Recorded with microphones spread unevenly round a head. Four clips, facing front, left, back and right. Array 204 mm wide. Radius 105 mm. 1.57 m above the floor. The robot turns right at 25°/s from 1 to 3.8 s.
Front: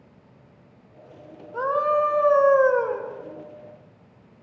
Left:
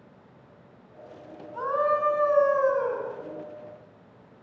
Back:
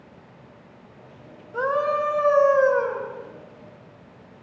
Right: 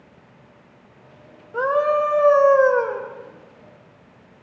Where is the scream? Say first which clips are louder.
Right 6 dB, front 1 dB; 90° right, 6 m; by 3.0 s 55° right, 6 m.